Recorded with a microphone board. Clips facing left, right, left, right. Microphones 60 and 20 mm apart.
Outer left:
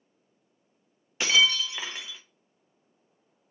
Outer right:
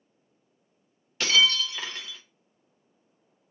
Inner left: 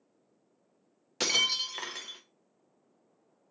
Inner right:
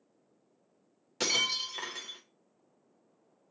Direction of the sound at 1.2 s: 15° left (ahead or behind).